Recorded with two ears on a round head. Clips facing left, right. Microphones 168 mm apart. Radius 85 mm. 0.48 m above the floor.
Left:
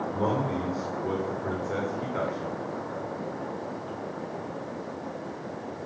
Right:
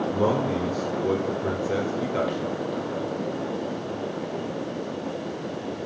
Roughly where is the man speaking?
Right.